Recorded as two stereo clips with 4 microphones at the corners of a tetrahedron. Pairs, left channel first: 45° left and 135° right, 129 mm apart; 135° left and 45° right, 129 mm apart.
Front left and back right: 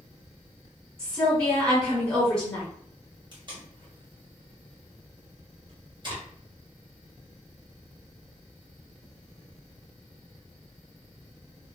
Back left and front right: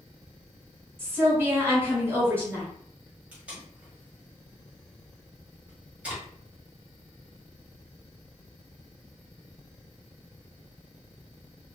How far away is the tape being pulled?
About 1.4 m.